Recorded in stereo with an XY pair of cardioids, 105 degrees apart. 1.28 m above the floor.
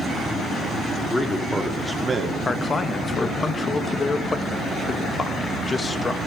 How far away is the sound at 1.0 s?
About 2.5 m.